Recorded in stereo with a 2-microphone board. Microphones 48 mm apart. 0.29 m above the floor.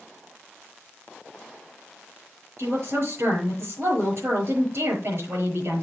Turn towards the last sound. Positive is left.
turn(degrees=-65)  # may be behind; listen again after turning